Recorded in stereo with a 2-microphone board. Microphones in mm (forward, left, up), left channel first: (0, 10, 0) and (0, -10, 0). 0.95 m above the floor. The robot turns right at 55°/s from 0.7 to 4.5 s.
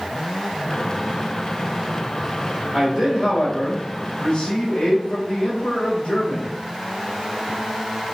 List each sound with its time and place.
2.7 s a man speaking: 25° right, 3 m; by 6.5 s 75° left, 3 m